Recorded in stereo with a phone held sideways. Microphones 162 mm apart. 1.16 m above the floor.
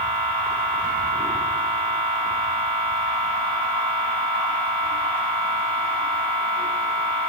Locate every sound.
0.0 s a machine running: 10° left (ahead or behind), 2.5 m